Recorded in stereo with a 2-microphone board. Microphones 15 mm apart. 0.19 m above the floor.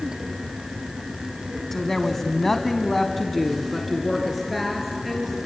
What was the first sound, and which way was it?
A woman speaking, 25° left (ahead or behind).